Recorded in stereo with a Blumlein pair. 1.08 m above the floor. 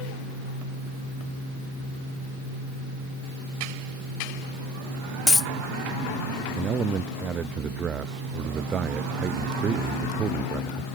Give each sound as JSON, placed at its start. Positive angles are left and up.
{"t": 5.3, "sound": "a dropped coin", "azimuth_deg": 10}
{"t": 6.6, "sound": "a man speaking", "azimuth_deg": -25}